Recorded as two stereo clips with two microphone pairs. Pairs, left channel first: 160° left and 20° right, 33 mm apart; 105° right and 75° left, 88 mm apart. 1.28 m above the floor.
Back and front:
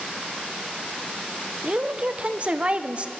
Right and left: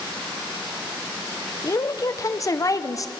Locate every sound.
1.6 s a woman speaking: 60° right, 0.8 m